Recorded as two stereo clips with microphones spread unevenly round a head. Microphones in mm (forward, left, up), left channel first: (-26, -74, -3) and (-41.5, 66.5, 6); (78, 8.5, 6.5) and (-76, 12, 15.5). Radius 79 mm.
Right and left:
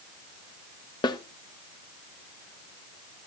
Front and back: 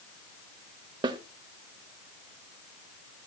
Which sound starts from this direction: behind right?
A snare drum, at 1.0 s.